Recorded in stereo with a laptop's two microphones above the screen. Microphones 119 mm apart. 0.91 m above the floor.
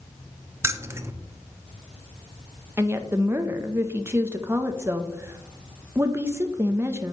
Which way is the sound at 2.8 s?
20° right (ahead or behind).